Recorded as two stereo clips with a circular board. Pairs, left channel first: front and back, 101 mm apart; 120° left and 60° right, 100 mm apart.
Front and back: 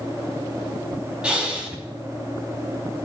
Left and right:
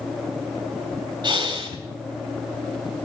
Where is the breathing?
100° right, 4 m.